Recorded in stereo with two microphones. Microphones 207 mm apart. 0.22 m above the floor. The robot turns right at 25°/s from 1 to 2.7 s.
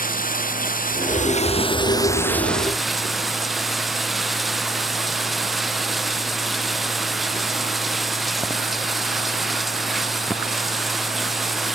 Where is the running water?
140° left; by 11.8 s straight behind.